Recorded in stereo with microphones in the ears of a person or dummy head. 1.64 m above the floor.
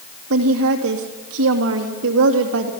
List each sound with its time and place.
0.3 s a woman speaking: 65° right (ahead or behind), 2.5 m